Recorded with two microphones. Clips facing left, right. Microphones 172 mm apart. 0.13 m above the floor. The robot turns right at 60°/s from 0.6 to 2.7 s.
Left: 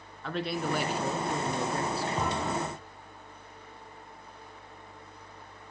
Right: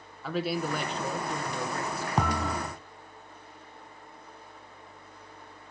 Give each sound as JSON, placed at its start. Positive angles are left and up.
{"t": 0.2, "sound": "a man speaking", "azimuth_deg": -5, "distance_m": 1.4}
{"t": 2.2, "sound": "a thud", "azimuth_deg": -90, "distance_m": 1.6}